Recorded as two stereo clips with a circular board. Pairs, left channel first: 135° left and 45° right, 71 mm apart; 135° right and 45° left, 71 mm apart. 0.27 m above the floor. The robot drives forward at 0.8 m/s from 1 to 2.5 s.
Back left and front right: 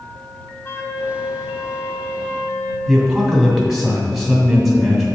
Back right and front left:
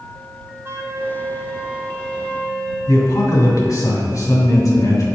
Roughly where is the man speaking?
Behind right.